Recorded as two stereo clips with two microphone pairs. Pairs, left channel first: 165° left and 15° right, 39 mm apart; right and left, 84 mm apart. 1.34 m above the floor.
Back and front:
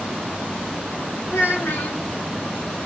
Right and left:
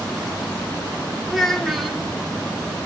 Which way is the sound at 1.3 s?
Straight behind.